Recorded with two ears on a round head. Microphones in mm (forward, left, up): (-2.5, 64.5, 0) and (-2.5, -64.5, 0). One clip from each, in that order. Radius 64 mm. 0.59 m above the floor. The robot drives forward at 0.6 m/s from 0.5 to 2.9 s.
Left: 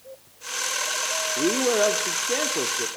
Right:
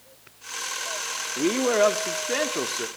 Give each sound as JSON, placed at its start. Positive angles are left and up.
{"t": 1.4, "sound": "a man speaking", "side_deg": -45, "distance_m": 1.1}